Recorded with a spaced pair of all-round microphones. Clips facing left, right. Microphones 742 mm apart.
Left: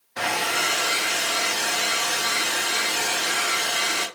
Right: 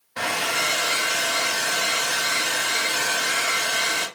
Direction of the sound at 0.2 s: 10° right (ahead or behind).